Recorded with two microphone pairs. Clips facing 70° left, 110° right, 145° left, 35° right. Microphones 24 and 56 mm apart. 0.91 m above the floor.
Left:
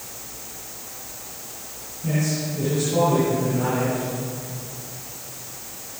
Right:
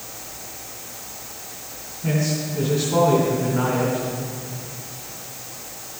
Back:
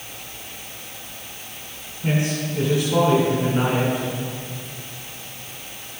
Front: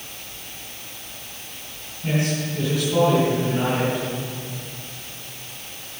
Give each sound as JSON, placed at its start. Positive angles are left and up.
{"t": 2.0, "sound": "a man speaking", "azimuth_deg": -155, "distance_m": 3.5}